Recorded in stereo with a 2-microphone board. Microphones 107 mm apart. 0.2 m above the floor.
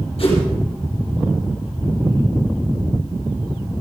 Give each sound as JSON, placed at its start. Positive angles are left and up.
{"t": 0.2, "sound": "a whoosh", "side_deg": 65, "distance_m": 7.5}